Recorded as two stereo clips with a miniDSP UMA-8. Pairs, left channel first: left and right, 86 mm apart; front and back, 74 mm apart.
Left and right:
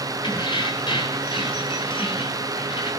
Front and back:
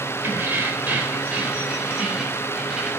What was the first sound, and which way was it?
Keys jangling, 115° left.